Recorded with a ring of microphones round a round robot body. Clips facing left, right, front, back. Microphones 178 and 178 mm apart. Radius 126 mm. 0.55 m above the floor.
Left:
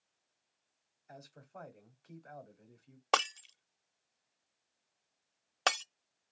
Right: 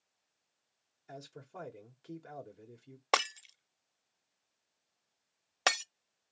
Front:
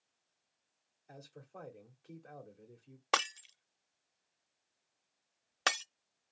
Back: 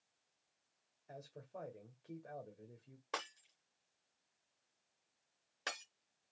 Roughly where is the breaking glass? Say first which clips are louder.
Even, front 10 dB; ahead.